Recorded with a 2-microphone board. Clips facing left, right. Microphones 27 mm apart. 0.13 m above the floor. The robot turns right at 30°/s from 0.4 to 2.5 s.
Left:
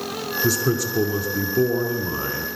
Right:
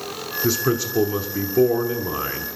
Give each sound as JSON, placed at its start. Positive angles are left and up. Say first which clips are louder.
{"t": 0.4, "sound": "a man speaking", "louder": "right 1 dB", "side_deg": -20, "distance_m": 1.0}